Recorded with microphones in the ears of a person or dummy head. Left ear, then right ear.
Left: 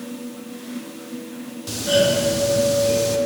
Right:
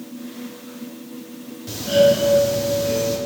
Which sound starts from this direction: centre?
A doorbell, at 1.7 s.